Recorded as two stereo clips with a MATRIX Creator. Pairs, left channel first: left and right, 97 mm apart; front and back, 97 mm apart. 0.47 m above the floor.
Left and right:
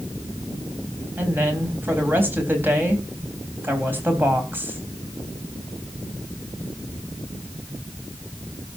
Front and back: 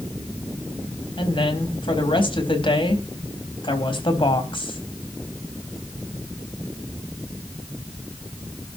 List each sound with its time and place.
1.2 s a woman speaking: 20° right, 3.5 m